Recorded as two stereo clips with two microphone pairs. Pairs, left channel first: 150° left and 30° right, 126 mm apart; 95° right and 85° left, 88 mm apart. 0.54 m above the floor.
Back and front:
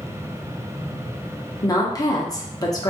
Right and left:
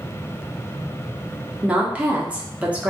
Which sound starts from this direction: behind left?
A woman speaking, at 1.6 s.